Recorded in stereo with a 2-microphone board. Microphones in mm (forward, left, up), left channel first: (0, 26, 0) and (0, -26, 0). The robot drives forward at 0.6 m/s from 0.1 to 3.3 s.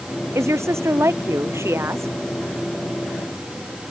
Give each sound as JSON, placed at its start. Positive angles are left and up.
{"t": 0.3, "sound": "a woman speaking", "side_deg": -60}